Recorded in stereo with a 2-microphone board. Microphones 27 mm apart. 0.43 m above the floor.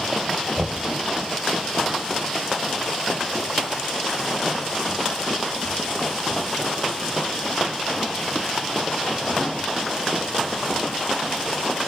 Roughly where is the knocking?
Right.